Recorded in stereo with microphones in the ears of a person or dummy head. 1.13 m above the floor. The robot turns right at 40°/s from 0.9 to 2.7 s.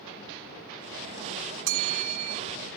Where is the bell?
70° right (ahead or behind); by 2.4 s 80° right.